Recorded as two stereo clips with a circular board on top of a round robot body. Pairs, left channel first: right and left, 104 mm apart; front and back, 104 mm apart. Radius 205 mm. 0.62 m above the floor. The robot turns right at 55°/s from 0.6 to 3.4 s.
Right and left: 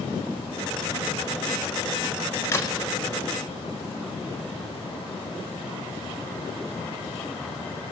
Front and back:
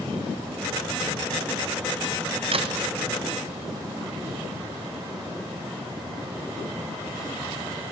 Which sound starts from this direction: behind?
A crack, at 2.5 s.